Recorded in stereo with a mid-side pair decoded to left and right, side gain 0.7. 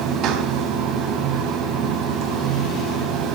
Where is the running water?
50° right, 2.5 m.